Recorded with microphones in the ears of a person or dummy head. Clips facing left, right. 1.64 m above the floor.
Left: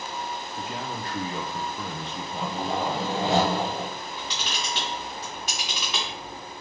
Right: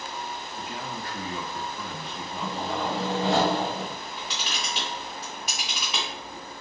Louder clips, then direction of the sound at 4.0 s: Left 1 dB; 10° right (ahead or behind).